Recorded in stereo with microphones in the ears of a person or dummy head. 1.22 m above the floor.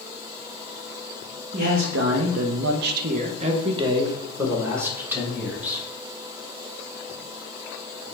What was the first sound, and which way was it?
A man speaking, 50° right (ahead or behind).